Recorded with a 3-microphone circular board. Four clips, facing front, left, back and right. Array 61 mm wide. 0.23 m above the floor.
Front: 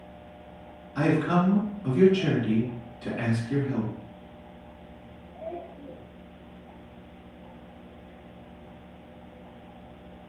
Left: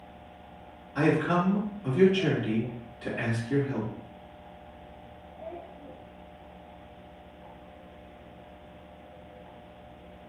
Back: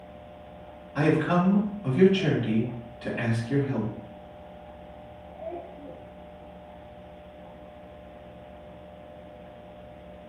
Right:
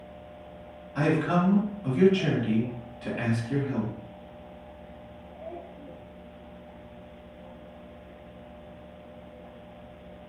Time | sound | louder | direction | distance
0.9 | a man speaking | even, back 1 dB | 165° right | 1.7 m